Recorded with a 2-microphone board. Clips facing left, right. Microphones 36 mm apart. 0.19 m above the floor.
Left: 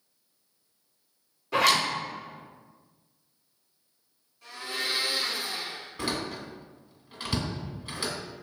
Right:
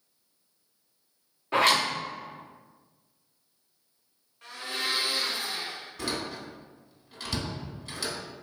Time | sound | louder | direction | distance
1.5 | a zipper | even | 40° right (ahead or behind) | 1.7 m
4.4 | a blender | even | 50° right (ahead or behind) | 1.5 m
6.0 | a door slam | left 2 dB | 25° left (ahead or behind) | 1.0 m